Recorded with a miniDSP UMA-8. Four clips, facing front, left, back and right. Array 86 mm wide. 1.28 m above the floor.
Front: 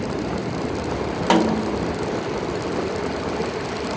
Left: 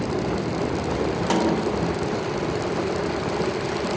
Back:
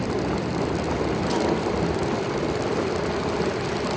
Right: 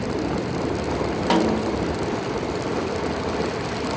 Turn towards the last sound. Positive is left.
turn(degrees=-15)